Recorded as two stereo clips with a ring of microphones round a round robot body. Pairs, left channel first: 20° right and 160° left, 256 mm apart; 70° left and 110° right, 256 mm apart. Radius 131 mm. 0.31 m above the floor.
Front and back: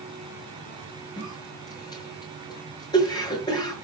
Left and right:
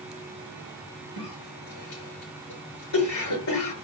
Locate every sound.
1.2 s a cough: 55° left, 6.5 m